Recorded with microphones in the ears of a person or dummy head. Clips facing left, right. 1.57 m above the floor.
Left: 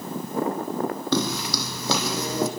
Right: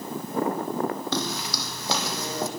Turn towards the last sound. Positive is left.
turn(degrees=65)  # may be behind; listen again after turning